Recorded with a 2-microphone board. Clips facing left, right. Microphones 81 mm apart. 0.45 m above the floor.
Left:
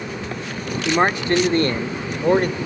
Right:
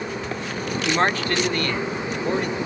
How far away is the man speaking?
About 0.9 m.